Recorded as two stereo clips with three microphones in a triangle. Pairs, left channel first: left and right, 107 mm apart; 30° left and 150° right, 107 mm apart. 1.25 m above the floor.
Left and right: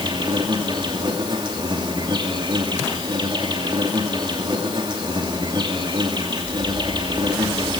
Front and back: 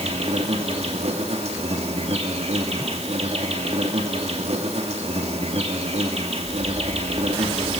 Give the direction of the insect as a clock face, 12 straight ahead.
5 o'clock.